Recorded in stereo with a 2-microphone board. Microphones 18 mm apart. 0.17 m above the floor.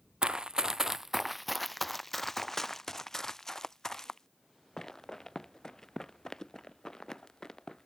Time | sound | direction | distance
0.2 | running footsteps | 55° right (ahead or behind) | ?